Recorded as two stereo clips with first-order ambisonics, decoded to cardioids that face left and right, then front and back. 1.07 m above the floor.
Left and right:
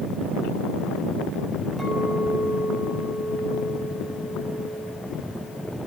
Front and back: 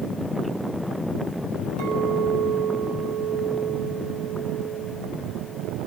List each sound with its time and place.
1.8 s a clink: 170° right, 4 m